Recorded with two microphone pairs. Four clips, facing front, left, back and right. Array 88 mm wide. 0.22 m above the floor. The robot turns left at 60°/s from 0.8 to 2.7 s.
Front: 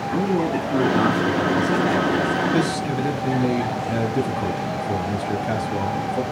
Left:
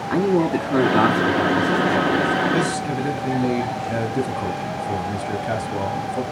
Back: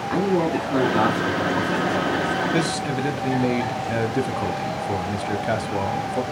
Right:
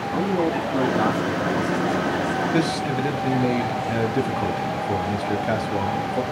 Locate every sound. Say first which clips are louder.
0.1 s a man speaking: left 4 dB, back 1 dB; 120° left, 1.9 m; by 2.4 s 20° left, 1.9 m
2.5 s a man speaking: even, front 2 dB; 160° right, 1.0 m; by 6.2 s 170° right, 1.0 m